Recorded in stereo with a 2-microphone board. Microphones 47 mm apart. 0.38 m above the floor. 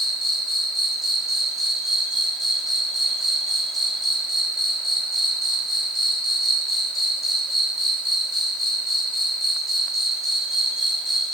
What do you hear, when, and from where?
0.0 s an insect: 5° right (ahead or behind), 1.3 m